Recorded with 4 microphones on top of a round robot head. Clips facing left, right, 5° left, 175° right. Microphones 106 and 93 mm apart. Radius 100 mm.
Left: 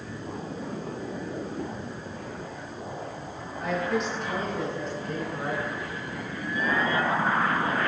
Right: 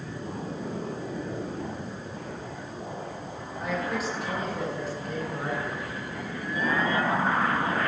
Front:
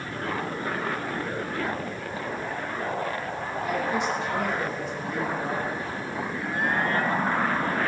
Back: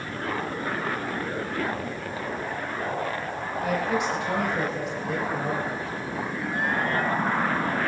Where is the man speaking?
175° right, 8.5 m.